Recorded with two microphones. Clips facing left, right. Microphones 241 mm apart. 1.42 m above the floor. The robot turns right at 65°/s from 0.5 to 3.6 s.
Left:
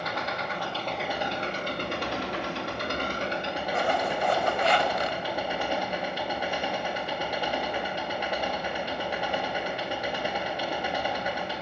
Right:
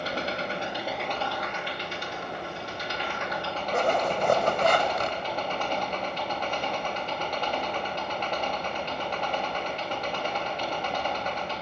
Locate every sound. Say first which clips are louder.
0.0 s an engine running: right 2 dB; 30° right, 2.5 m; by 11.6 s 170° left, 2.5 m
3.7 s a zipper: right 3 dB; 50° right (ahead or behind), 2.0 m